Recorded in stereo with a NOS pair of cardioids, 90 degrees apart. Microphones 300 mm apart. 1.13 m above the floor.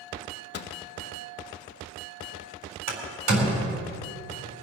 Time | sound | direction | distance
0.5 | a microwave | 50° left | 1.1 m
2.9 | a door slam | 60° right | 4 m